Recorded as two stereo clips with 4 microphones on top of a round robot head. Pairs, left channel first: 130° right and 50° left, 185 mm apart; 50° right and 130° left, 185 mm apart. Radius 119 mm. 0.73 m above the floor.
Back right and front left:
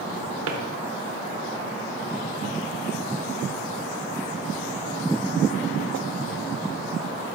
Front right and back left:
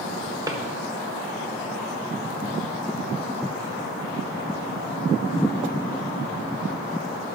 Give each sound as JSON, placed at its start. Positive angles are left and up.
{"t": 0.5, "sound": "a drawer", "azimuth_deg": 60, "distance_m": 1.1}